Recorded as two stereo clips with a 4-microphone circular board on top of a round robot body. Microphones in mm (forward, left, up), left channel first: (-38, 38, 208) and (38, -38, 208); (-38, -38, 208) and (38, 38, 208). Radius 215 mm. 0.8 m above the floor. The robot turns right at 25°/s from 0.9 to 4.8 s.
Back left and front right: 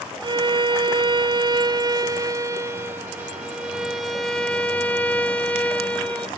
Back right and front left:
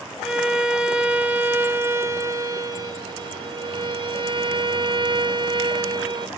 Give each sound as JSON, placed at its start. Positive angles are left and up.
{"t": 0.2, "sound": "a violin", "azimuth_deg": -35, "distance_m": 1.0}